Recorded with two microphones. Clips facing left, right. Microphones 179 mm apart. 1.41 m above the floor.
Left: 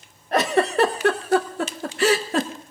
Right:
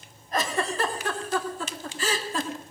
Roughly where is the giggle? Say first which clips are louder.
Left 8 dB; left.